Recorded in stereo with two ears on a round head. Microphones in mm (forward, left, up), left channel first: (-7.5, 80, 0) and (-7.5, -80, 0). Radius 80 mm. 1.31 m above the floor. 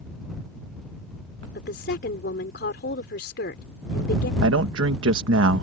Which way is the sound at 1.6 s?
60° left (ahead or behind).